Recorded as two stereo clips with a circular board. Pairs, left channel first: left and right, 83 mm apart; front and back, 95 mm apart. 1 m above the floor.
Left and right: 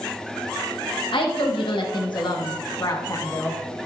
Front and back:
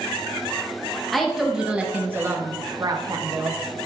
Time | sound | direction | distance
1.1 | a woman speaking | 90° left | 1.5 m